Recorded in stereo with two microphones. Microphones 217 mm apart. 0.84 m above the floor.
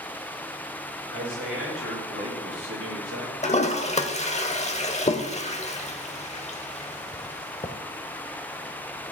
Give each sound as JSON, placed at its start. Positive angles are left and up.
{"t": 1.1, "sound": "a man speaking", "side_deg": -80, "distance_m": 4.5}
{"t": 3.4, "sound": "a toilet flushing", "side_deg": 30, "distance_m": 0.7}